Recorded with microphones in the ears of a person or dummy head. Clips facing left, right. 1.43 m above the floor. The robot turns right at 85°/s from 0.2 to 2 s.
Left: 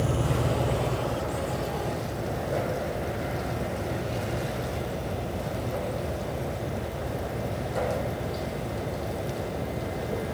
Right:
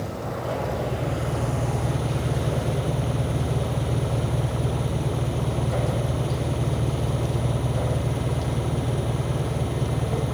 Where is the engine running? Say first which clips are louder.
Left 3 dB; 130° left; by 10.3 s 75° right.